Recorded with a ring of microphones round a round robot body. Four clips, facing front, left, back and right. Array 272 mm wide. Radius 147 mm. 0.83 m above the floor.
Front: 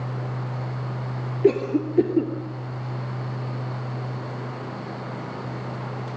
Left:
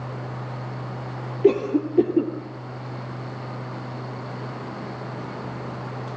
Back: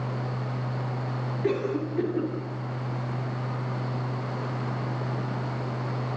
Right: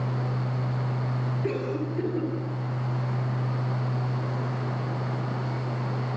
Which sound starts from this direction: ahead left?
A cough, at 1.4 s.